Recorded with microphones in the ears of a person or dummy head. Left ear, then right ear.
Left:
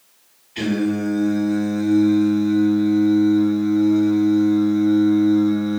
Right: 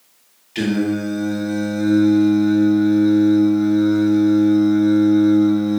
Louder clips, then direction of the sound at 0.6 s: Right 1 dB; 65° right (ahead or behind).